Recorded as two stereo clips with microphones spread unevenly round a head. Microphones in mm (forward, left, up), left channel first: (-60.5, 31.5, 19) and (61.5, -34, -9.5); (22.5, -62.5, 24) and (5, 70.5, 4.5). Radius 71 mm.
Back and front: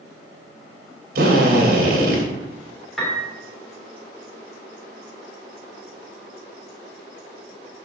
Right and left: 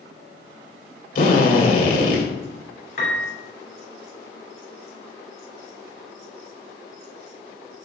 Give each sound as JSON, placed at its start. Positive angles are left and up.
{"t": 1.1, "sound": "a drill", "azimuth_deg": -55, "distance_m": 2.5}
{"t": 3.0, "sound": "a piano", "azimuth_deg": -120, "distance_m": 2.0}